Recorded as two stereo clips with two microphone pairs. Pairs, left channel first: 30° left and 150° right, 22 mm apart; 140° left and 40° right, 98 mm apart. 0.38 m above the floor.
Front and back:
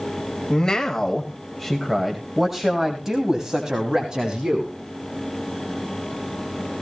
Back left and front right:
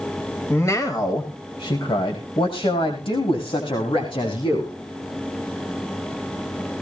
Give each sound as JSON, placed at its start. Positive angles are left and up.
{"t": 0.5, "sound": "a man speaking", "azimuth_deg": 80, "distance_m": 1.6}